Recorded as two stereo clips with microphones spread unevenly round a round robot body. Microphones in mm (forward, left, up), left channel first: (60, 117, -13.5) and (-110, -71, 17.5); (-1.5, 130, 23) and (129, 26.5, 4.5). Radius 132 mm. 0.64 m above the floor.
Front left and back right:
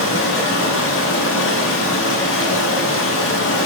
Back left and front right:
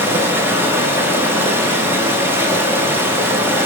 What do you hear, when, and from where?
0.0 s running water: 30° left, 0.9 m